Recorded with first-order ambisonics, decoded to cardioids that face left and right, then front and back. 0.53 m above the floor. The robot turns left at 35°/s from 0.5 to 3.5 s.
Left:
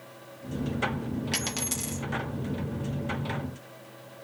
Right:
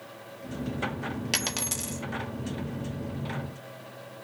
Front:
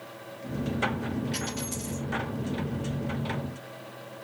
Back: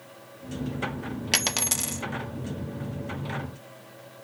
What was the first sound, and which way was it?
A dropped coin, 160° right.